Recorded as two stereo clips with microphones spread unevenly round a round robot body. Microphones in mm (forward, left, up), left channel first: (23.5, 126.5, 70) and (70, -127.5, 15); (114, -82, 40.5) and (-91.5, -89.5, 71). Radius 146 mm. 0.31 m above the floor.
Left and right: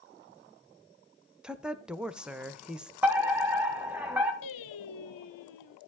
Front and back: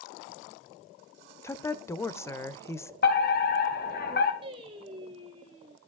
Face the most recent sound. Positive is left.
turn(degrees=110)